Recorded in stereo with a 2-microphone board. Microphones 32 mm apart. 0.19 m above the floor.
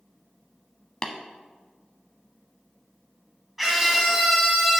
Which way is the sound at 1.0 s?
25° left (ahead or behind).